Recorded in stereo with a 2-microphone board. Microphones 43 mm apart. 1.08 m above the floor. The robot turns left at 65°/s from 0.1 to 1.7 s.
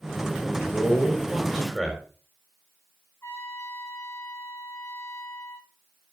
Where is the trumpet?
85° left, 4.5 m.